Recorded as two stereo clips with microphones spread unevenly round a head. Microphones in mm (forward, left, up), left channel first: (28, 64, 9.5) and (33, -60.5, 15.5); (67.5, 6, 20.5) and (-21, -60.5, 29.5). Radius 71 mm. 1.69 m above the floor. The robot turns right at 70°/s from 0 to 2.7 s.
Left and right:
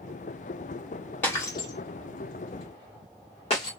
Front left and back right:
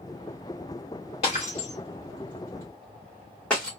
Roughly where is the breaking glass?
Ahead.